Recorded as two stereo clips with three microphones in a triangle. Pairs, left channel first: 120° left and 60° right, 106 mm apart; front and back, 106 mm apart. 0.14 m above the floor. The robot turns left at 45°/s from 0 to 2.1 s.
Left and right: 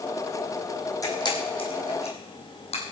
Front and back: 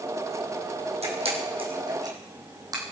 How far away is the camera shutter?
About 3.5 m.